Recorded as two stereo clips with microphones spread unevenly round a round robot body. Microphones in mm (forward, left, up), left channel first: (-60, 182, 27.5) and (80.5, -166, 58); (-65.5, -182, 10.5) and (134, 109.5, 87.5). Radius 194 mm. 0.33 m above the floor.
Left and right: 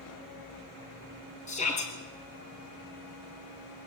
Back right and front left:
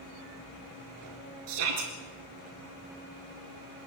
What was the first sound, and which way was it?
A shout, 40° left.